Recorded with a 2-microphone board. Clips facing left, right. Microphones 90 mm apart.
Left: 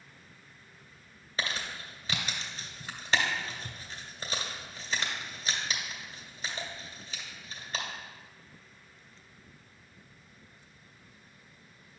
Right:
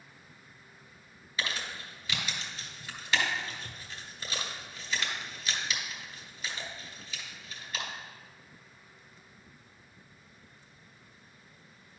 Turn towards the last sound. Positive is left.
turn(degrees=35)  # may be behind; listen again after turning